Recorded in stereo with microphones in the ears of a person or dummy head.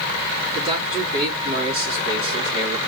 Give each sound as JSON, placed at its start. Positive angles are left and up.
{"t": 0.6, "sound": "a man speaking", "side_deg": -30, "distance_m": 3.5}